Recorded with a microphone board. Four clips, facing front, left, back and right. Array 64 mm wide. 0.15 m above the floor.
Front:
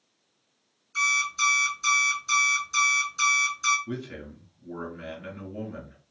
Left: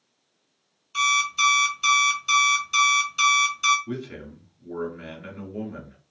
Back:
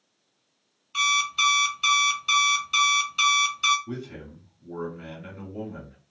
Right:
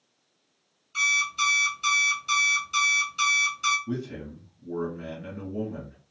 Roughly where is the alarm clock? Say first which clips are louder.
Left 3 dB, back 1 dB; behind.